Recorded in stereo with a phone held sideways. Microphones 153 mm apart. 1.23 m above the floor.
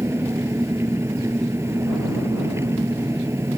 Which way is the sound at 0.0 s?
15° right (ahead or behind).